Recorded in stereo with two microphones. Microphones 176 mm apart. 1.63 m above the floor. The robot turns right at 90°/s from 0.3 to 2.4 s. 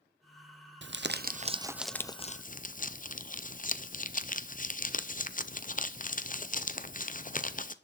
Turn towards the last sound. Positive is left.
turn(degrees=50)